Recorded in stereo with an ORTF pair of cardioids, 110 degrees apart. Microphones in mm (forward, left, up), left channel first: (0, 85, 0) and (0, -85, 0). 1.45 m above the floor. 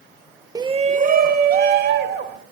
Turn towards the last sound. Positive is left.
turn(degrees=-70)